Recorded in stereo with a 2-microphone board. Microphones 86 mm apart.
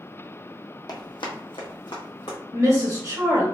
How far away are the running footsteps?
About 0.8 m.